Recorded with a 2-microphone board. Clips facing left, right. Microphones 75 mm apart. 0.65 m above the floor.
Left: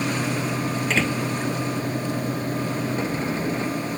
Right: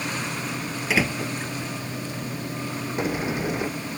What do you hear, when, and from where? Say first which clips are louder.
0.9 s a door slam: right 2 dB; 10° right (ahead or behind)
3.0 s a sliding door: left 1 dB; 15° right (ahead or behind)